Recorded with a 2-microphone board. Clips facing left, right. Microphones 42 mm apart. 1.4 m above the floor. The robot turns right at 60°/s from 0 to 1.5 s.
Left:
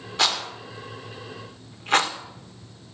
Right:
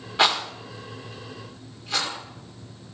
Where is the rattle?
15° right (ahead or behind), 1.7 m; by 2.1 s 50° left (ahead or behind), 1.7 m.